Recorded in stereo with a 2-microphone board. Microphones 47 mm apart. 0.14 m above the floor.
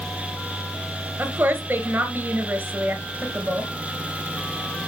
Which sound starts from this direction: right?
A woman speaking, at 1.2 s.